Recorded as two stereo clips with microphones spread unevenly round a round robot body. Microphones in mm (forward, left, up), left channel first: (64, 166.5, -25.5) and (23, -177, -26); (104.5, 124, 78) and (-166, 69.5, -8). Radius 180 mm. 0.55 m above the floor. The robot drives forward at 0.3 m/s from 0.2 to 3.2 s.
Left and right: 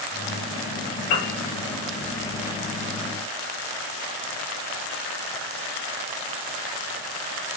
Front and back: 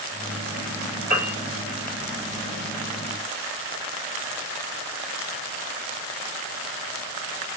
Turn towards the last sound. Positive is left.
turn(degrees=135)